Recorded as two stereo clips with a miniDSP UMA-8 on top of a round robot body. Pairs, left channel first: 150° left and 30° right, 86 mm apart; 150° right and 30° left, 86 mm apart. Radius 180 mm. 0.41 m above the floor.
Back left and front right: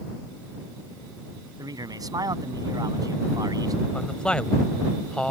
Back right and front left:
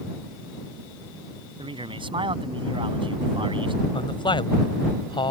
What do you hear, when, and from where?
1.6 s a man speaking: 15° left
3.9 s a man speaking: 130° right